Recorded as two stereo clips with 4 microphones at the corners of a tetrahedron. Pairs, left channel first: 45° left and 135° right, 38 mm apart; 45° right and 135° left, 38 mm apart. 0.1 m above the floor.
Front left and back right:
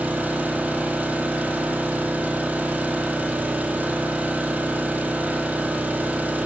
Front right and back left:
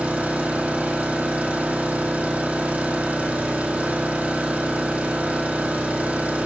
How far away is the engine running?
About 1.7 m.